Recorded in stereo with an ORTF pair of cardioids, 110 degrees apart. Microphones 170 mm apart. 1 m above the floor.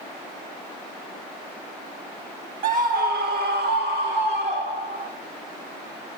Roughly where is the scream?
Ahead right.